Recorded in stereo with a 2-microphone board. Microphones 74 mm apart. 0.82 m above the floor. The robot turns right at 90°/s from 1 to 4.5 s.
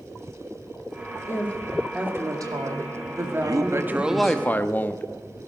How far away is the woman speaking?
About 2 m.